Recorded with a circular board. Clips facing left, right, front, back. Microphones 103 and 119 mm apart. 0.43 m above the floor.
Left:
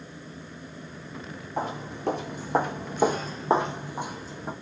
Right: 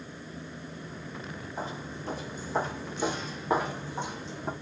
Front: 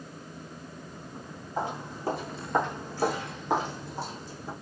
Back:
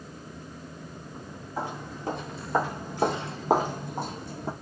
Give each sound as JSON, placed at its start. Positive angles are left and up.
{"t": 1.6, "sound": "footsteps", "azimuth_deg": 75, "distance_m": 1.2}